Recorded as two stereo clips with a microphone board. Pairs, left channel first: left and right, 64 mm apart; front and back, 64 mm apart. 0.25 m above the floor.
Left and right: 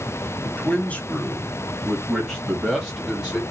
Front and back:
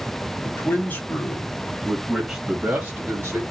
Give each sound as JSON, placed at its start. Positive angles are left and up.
{"t": 0.4, "sound": "a man speaking", "azimuth_deg": 35, "distance_m": 1.3}